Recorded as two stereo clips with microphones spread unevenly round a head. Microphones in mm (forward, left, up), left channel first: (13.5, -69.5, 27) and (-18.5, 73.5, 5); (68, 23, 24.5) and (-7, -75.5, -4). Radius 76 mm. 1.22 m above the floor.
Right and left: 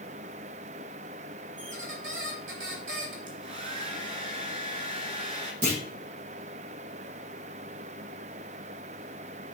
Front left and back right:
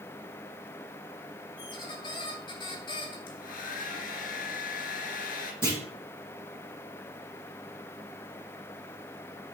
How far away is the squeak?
About 2.5 m.